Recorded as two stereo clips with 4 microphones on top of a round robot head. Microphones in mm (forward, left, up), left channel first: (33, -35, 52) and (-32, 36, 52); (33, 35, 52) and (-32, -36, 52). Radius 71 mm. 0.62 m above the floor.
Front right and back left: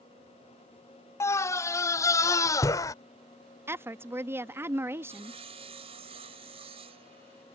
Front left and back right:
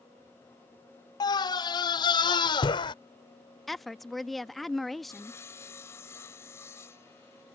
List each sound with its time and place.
1.2 s a scream: 10° left
3.7 s a woman speaking: 135° left
5.1 s sawing: 110° left